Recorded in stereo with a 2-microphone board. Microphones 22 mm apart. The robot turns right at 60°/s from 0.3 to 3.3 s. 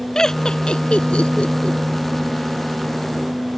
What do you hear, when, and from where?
0.1 s laughter: 25° left (ahead or behind); by 1.8 s 45° left (ahead or behind)